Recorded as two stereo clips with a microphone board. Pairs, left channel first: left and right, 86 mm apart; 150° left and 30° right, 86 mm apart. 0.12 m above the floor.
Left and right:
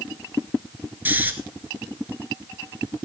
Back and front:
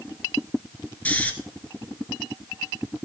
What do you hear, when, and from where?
1.1 s snoring: 145° right, 1.4 m